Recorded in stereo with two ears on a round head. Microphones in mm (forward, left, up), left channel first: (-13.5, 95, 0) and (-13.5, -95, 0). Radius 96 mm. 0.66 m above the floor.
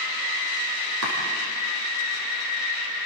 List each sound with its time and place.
1.0 s chopping: 65° right (ahead or behind), 7.5 m